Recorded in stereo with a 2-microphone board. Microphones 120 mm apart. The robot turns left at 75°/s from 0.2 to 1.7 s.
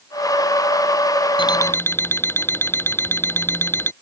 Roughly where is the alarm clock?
Left.